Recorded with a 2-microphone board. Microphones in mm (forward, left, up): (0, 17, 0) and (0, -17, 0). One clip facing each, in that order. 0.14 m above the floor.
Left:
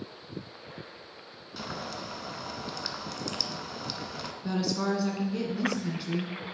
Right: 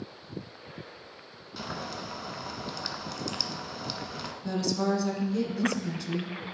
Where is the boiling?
Centre (ahead or behind), 0.7 m.